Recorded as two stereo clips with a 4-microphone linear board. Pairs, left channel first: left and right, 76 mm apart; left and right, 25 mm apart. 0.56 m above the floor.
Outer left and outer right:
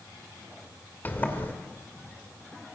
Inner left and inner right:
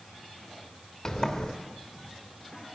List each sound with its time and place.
1.1 s a sliding door: 25° left (ahead or behind), 2.5 m